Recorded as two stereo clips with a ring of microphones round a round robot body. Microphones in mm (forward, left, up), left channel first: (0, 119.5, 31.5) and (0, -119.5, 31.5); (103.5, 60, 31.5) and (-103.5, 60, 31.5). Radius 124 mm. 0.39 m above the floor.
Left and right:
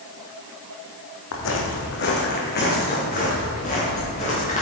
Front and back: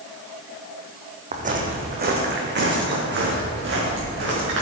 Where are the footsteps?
125° left, 1.6 m; by 4.6 s 155° left, 4 m.